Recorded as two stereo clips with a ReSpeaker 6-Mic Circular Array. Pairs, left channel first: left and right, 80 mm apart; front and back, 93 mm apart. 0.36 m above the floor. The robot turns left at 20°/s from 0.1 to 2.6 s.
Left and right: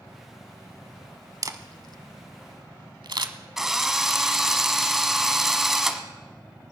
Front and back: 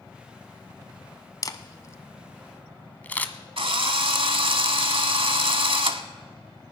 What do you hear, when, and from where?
1.4 s a camera shutter: 50° right, 0.8 m; by 3.3 s 70° right, 0.8 m
3.6 s a drill: 175° right, 1.0 m